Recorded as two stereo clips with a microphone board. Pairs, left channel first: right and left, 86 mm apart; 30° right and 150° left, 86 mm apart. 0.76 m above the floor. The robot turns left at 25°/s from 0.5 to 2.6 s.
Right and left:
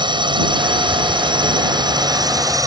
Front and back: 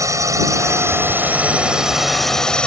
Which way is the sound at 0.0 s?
100° left.